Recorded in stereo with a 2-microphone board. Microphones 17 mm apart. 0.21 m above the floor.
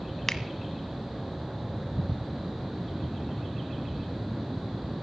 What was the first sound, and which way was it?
A finger snap, 20° left (ahead or behind).